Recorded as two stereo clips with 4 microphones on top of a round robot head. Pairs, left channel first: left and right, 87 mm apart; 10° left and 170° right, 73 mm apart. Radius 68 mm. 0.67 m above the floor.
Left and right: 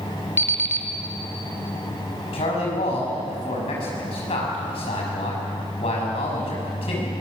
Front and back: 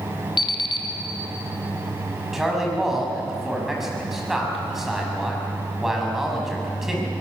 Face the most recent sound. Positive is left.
turn(degrees=105)